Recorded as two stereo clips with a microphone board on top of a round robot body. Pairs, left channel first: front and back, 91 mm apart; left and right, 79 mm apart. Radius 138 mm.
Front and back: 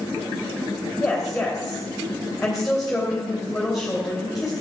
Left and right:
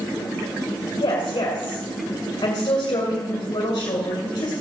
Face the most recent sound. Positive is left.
turn(degrees=90)